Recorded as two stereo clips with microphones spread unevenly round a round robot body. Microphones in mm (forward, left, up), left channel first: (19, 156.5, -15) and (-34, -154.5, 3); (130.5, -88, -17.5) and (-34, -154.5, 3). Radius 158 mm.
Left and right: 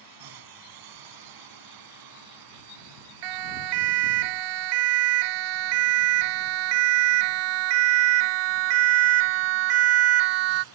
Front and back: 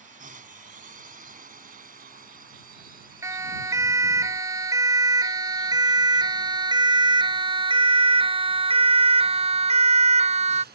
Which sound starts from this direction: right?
A siren, at 3.2 s.